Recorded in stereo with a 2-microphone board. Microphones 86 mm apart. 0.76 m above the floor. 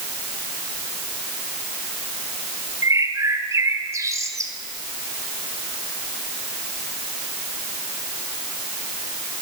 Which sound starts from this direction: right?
A bird, at 2.8 s.